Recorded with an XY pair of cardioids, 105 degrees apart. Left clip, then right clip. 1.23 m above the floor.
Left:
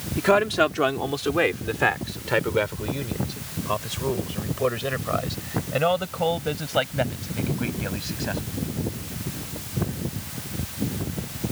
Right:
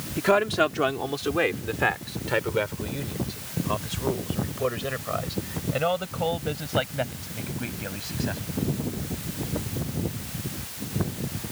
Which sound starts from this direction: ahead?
A man speaking, at 0.2 s.